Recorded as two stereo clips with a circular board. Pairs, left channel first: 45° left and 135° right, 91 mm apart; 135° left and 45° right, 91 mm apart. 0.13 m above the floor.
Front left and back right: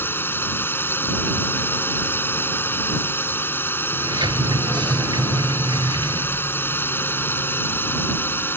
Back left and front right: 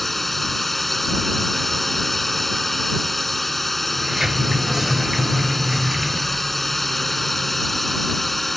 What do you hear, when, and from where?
0.0 s a drone: 50° left
3.9 s a sliding door: 130° right